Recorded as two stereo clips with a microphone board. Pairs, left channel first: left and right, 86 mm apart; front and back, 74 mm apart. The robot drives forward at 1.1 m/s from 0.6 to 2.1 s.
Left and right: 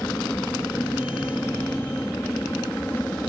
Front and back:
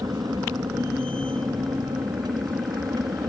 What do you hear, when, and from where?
0.0 s an aircraft: 160° left